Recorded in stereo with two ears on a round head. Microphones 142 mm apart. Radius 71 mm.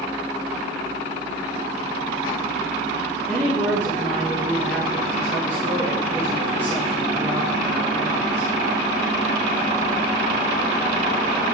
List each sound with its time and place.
3.3 s a woman speaking: 15° left (ahead or behind), 2.5 m